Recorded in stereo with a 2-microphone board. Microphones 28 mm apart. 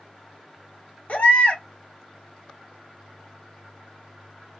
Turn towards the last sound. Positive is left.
turn(degrees=60)  # may be behind; listen again after turning